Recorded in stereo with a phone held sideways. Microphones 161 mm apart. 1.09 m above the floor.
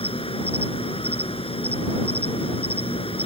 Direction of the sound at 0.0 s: 35° left (ahead or behind).